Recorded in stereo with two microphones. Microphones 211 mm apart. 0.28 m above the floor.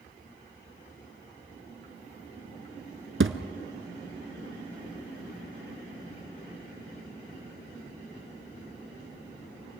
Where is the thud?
70° right (ahead or behind), 0.9 m.